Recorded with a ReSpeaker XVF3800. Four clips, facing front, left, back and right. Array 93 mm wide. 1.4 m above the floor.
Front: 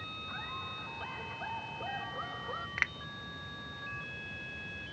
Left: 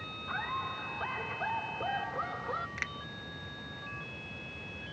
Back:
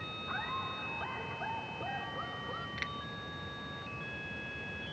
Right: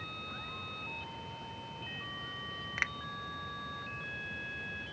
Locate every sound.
0.3 s laughter: 125° left; by 2.7 s 85° left
2.8 s a finger snap: 30° right